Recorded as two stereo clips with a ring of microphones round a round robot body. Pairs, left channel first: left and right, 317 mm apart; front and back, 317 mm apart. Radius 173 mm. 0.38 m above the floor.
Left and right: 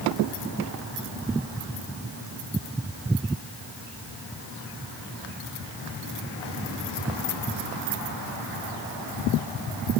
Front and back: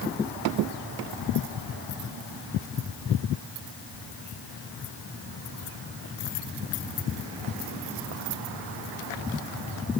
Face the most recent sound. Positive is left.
No sound to turn to.